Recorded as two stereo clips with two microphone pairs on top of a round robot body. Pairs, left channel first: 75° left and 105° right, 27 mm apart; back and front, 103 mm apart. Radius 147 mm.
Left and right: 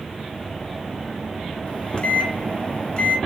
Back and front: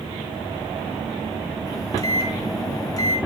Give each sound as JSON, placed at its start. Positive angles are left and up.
{"t": 1.7, "sound": "a microwave", "azimuth_deg": 125, "distance_m": 1.1}